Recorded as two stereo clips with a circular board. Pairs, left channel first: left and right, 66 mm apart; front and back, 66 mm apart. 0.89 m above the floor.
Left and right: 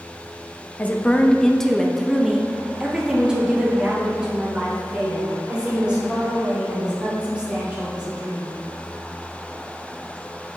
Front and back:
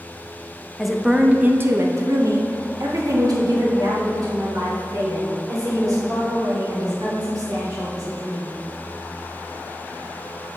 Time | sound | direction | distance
0.8 | a woman speaking | 80° left | 0.7 m